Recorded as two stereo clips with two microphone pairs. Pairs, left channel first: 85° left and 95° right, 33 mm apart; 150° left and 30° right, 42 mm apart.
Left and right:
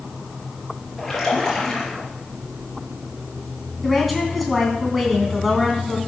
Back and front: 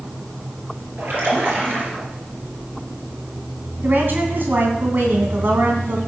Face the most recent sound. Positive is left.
turn(degrees=-5)